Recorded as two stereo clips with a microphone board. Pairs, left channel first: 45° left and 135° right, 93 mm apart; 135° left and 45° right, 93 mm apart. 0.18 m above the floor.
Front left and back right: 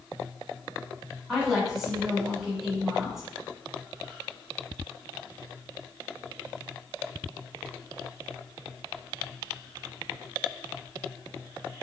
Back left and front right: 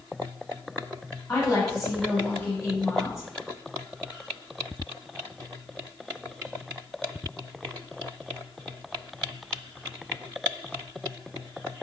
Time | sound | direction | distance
1.3 | a woman speaking | 140° left | 1.9 m